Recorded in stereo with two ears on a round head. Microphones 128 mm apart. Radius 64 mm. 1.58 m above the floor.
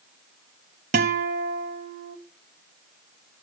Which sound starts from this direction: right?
A guitar, at 0.9 s.